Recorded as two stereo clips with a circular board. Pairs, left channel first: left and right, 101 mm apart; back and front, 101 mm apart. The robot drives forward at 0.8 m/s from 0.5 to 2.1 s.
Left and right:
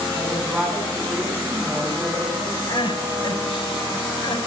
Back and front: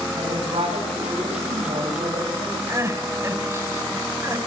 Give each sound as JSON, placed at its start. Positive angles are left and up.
{"t": 0.1, "sound": "a woman speaking", "azimuth_deg": -10, "distance_m": 8.0}
{"t": 2.7, "sound": "crying", "azimuth_deg": 60, "distance_m": 3.0}